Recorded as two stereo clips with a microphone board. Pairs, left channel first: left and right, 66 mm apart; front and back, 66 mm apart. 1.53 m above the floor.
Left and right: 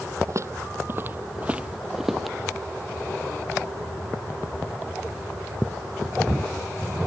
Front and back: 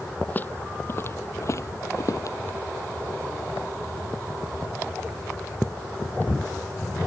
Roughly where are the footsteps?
Ahead right.